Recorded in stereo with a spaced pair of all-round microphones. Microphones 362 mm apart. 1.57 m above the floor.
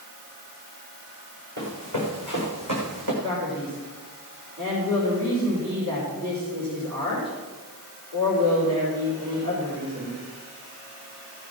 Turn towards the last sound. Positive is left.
turn(degrees=-65)  # may be behind; listen again after turning